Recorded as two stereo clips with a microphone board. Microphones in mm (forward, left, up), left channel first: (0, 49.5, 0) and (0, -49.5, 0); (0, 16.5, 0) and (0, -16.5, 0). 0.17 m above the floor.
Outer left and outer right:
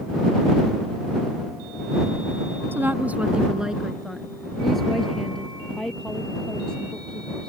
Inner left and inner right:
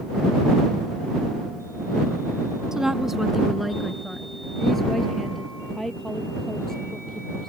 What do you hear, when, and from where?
2.7 s a woman speaking: 20° right (ahead or behind); by 7.5 s 10° left (ahead or behind)